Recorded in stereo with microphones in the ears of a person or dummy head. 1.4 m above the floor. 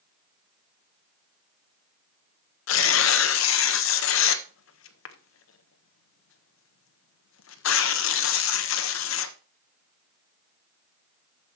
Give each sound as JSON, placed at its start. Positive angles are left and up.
{"t": 2.7, "sound": "tearing paper", "side_deg": 80, "distance_m": 1.3}